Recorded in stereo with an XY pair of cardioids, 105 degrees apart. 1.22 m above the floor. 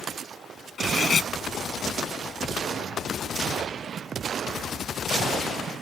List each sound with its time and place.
0.8 s cutlery clinking: 40° left